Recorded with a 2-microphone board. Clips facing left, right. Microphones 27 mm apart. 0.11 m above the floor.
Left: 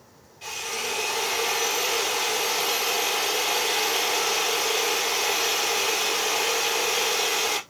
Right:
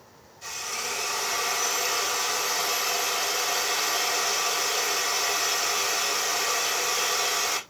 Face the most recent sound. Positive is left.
turn(degrees=45)  # may be behind; listen again after turning